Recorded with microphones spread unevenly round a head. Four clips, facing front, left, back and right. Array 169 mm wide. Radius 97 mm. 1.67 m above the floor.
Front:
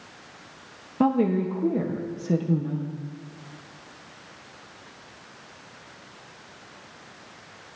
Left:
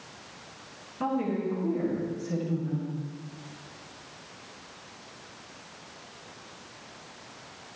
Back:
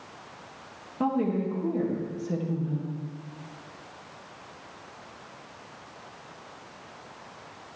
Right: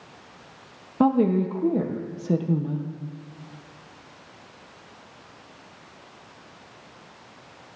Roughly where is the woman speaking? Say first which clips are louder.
Right 9 dB, front 5 dB; ahead right.